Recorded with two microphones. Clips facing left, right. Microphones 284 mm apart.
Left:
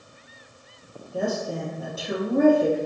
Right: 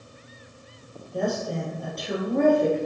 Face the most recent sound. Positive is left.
turn(degrees=5)  # may be behind; listen again after turning